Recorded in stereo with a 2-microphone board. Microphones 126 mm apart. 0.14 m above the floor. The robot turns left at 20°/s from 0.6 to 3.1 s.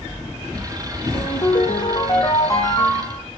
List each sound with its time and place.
1.1 s a ringtone: 55° left, 4.5 m; by 3.2 s 15° left, 4.5 m